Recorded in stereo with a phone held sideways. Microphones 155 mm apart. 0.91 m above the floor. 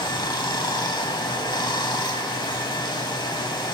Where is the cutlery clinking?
I don't hear cutlery clinking.